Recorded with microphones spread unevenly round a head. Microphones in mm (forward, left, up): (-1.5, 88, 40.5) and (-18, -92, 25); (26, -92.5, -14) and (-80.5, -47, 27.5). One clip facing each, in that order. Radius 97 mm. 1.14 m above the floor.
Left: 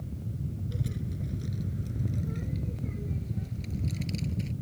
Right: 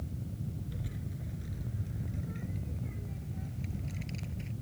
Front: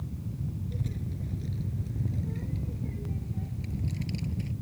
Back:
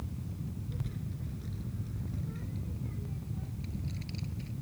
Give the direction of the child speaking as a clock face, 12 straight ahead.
11 o'clock.